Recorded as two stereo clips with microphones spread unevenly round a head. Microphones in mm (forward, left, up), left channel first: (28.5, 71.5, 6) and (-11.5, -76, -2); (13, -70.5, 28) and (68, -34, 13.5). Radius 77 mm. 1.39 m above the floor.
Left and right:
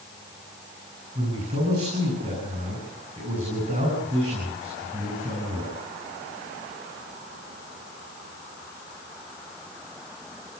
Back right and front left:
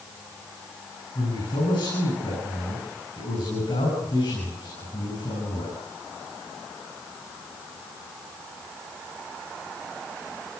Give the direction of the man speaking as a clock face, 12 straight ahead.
5 o'clock.